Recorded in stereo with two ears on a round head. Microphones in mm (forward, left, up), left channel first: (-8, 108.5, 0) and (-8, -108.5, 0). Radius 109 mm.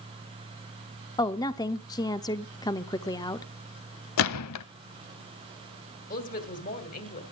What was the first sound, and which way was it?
A woman speaking, 15° left (ahead or behind).